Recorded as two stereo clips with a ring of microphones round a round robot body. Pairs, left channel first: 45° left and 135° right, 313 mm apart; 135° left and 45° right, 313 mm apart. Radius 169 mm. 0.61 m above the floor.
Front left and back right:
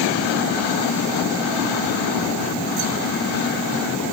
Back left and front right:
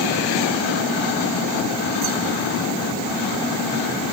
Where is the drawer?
No drawer in this recording.